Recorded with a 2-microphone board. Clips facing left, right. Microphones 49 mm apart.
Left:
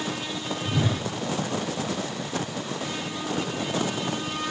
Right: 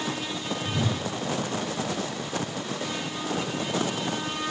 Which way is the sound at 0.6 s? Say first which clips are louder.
Left 3 dB; 15° left (ahead or behind).